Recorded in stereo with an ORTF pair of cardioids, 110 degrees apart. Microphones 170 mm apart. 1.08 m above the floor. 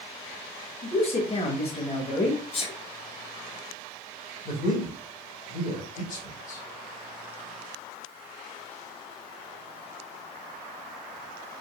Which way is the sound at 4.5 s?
50° left.